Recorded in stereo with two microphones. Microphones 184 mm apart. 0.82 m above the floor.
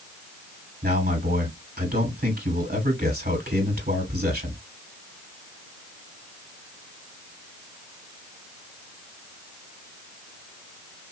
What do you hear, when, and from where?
0.8 s a man speaking: 55° right (ahead or behind), 3 m